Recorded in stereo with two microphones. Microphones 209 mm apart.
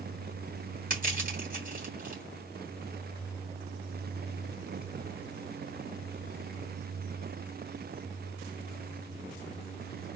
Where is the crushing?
40° right (ahead or behind), 2 m.